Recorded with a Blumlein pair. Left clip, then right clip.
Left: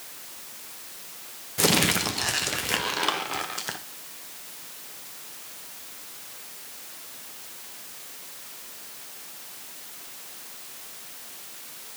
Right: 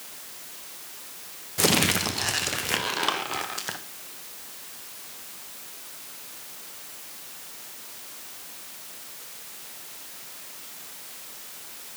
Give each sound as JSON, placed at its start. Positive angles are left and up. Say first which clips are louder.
{"t": 1.6, "sound": "crumpling", "louder": "even", "azimuth_deg": 0, "distance_m": 0.6}